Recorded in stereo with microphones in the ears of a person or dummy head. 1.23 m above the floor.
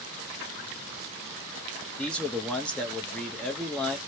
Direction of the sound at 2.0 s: 5° left (ahead or behind).